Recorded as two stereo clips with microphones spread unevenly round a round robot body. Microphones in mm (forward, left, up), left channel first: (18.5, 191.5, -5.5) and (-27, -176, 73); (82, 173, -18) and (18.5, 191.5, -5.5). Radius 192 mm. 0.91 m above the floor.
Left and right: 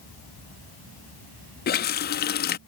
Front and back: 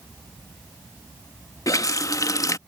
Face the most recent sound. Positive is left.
turn(degrees=20)